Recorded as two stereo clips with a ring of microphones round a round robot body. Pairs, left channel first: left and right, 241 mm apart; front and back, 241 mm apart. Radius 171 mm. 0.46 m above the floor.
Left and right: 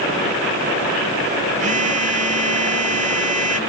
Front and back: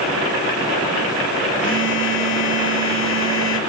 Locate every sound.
1.6 s a phone buzzing: 35° right, 1.7 m